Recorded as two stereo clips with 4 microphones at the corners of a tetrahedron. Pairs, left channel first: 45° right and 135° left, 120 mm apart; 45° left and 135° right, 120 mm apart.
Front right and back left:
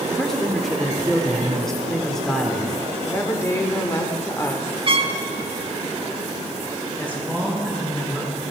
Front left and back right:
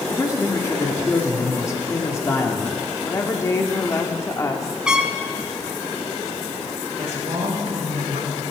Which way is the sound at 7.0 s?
120° right.